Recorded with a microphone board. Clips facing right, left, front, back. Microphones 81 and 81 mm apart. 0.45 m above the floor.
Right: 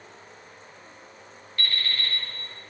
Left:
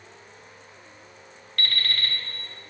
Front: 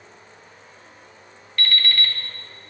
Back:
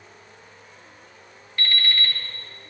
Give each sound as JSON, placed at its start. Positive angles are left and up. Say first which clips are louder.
{"t": 1.6, "sound": "an alarm clock", "louder": "left 1 dB, front 1 dB", "azimuth_deg": 105, "distance_m": 1.2}